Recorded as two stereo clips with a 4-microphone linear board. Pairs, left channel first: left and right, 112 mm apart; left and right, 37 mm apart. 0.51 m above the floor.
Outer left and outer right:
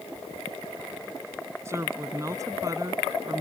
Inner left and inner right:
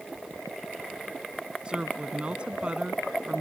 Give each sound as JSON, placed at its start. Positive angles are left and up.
{"t": 1.6, "sound": "a woman speaking", "side_deg": -25}